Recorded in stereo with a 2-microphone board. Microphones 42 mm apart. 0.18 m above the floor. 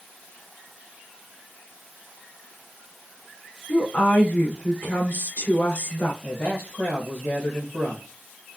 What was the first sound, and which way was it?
A woman speaking, 55° left (ahead or behind).